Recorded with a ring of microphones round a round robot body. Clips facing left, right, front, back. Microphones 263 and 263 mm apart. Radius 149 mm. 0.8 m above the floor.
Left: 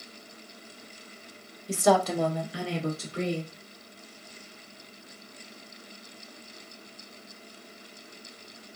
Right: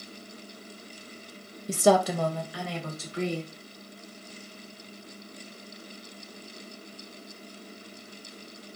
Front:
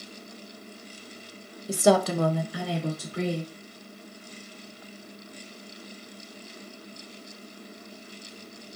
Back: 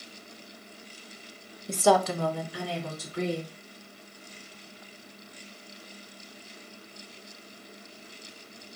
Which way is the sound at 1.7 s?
85° right.